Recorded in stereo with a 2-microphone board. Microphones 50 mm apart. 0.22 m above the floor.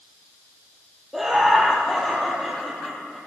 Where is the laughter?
5° right (ahead or behind), 5 m; by 3.2 s 5° left (ahead or behind), 6 m.